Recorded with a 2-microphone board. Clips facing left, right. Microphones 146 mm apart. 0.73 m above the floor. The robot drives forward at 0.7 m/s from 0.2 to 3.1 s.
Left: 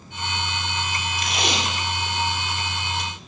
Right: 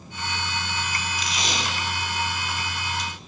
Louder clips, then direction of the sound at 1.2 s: Left 5 dB; 55° left (ahead or behind).